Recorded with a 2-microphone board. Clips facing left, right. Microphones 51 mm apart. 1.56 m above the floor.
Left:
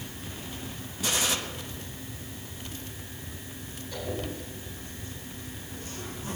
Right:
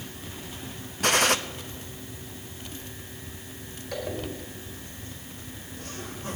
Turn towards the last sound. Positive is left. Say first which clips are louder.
# right 2 dB
turn(degrees=-75)  # may be behind; listen again after turning